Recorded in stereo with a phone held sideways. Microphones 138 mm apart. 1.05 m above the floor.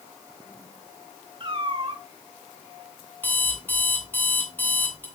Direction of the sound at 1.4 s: 35° right (ahead or behind).